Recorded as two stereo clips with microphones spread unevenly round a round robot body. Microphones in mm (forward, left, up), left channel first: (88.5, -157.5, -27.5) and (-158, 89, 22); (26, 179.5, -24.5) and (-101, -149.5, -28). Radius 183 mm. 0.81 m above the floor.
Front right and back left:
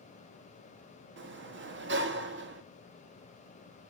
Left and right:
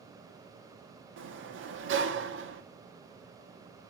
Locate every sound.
1.2 s a sliding door: 165° right, 1.3 m